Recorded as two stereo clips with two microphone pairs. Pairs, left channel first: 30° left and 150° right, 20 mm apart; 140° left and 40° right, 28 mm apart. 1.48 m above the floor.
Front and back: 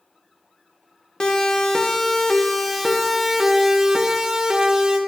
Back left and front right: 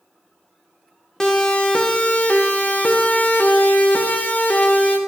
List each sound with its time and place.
1.2 s a siren: 75° left, 2 m; by 5.0 s 155° left, 3 m